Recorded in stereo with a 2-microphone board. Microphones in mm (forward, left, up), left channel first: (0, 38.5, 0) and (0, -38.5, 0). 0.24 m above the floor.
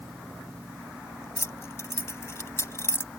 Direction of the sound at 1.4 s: 35° left (ahead or behind).